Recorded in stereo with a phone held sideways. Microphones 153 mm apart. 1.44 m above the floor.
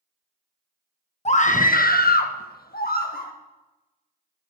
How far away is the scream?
About 1.2 m.